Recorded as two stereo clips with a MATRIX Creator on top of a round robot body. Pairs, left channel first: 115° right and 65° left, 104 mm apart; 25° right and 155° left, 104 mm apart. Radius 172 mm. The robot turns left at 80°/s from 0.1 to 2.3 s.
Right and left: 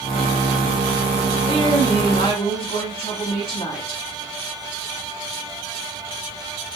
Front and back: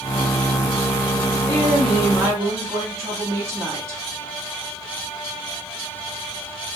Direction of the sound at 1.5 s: 80° right.